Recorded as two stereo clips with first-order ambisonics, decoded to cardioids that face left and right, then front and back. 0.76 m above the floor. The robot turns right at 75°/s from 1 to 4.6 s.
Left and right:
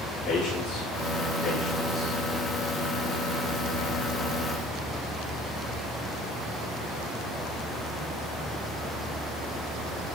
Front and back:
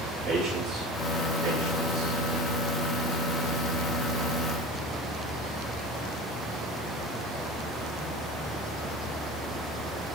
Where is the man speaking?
140° left, 7 m; by 2.2 s 135° right, 7 m.